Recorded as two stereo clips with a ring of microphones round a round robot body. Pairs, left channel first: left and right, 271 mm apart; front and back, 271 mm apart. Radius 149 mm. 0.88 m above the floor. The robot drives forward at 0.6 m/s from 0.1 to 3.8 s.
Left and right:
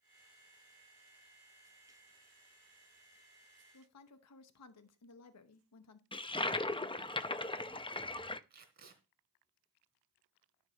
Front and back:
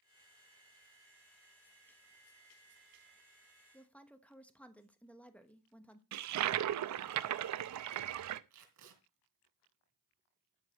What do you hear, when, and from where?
3.7 s a woman speaking: 80° left, 1.0 m; by 6.0 s 85° left, 1.0 m
6.1 s a toilet flushing: 160° left, 0.7 m
8.5 s tape being pulled: 145° right, 3 m